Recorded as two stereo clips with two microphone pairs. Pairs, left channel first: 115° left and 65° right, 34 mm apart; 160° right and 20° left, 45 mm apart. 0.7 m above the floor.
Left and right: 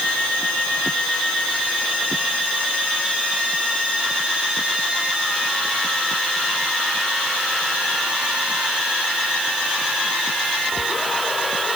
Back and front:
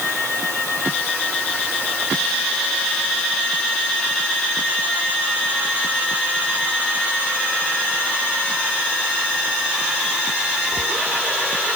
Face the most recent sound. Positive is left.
No sound to turn to.